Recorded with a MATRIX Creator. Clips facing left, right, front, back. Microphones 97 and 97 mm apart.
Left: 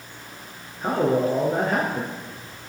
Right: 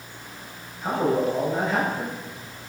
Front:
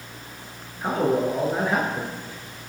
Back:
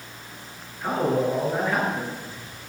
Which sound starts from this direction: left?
A man speaking, at 0.8 s.